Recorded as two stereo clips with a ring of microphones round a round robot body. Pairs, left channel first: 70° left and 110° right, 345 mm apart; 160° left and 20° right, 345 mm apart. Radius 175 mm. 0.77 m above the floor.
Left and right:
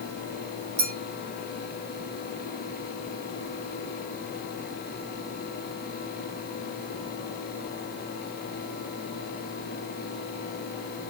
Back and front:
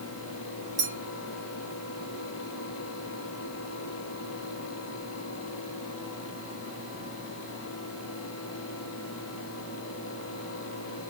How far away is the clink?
About 1.6 m.